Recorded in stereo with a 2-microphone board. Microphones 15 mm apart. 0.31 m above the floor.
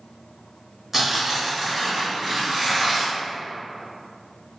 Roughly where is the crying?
No crying in this recording.